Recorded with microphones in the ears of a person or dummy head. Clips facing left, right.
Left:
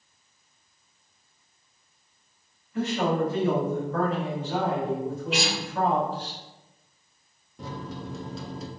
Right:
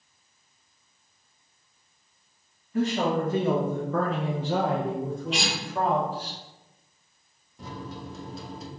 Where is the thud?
No thud in this recording.